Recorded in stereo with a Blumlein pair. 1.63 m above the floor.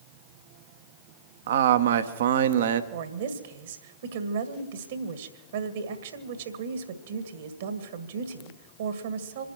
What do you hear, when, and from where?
1.5 s a man speaking: 60° right, 1.1 m
2.9 s a woman speaking: 60° right, 1.9 m